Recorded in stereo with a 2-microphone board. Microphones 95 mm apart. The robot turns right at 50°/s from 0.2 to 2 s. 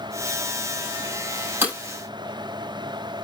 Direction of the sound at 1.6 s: 20° right (ahead or behind).